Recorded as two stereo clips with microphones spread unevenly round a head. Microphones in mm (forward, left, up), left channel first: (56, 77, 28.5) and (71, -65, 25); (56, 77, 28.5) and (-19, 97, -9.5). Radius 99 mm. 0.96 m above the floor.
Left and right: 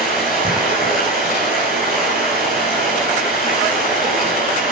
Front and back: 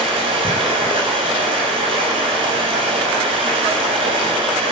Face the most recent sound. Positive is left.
turn(degrees=-170)